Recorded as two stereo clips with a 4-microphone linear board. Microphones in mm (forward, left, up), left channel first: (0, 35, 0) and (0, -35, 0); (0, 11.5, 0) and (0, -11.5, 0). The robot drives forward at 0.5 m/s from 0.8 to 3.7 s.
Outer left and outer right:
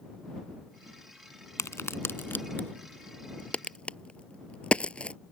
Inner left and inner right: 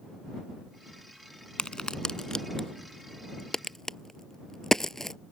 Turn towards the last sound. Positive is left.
turn(degrees=15)  # may be behind; listen again after turning